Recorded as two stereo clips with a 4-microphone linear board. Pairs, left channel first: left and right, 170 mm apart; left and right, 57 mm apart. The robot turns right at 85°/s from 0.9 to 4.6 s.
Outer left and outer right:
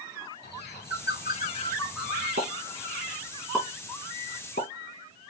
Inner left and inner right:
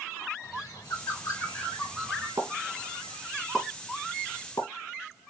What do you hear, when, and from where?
0.4 s a bird: 85° left, 4 m; by 2.3 s 30° right (ahead or behind), 4 m
2.4 s a pop: 65° right (ahead or behind), 3.5 m; by 5.3 s 65° left (ahead or behind), 3.5 m